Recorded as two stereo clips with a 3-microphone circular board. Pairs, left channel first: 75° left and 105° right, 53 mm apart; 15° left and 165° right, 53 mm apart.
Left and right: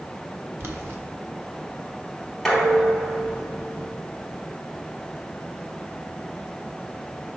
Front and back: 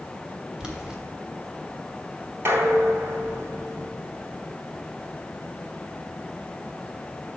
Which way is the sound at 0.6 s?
90° right.